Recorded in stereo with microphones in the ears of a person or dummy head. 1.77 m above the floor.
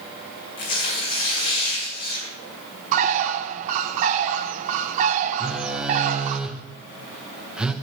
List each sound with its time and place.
0.6 s tearing paper: 55° left (ahead or behind), 4 m
2.9 s a bird: 45° right (ahead or behind), 0.6 m
5.4 s a phone buzzing: 5° right (ahead or behind), 0.8 m